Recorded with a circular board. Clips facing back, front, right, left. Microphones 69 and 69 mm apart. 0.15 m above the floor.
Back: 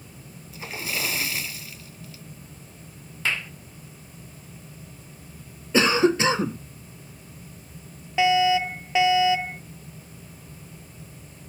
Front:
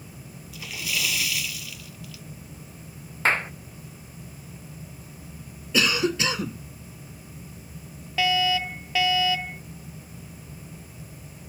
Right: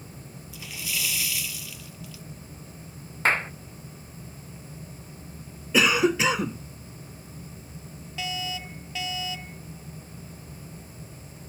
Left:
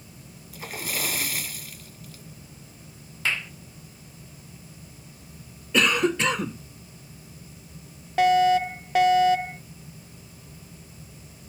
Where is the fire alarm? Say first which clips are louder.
Back 4 dB, left 16 dB; 115° left.